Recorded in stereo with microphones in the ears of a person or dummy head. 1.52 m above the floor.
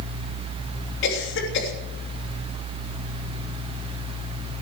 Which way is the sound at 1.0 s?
75° left (ahead or behind).